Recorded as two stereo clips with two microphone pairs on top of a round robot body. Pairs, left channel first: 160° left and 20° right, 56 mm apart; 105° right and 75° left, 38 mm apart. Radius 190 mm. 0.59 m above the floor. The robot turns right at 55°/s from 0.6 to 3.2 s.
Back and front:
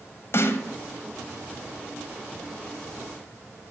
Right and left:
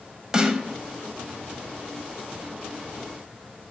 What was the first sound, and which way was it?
A snare drum, 145° left.